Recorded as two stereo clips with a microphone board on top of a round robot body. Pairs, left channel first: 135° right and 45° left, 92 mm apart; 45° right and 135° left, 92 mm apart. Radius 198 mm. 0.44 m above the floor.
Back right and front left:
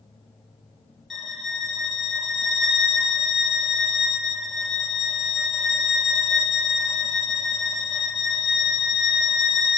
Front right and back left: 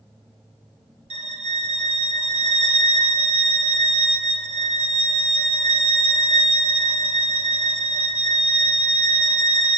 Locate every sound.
1.1 s a violin: 135° left, 0.6 m